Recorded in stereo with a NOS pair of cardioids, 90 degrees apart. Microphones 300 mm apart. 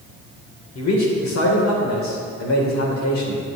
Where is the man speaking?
65° left, 3.5 m.